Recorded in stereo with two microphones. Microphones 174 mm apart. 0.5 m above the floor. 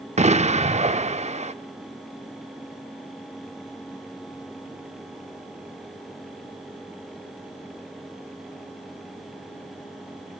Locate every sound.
0.2 s an explosion: 40° right (ahead or behind), 0.8 m